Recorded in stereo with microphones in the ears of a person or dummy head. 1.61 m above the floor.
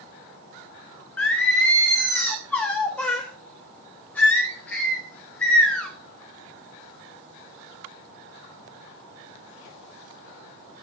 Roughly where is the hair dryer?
No hair dryer in this recording.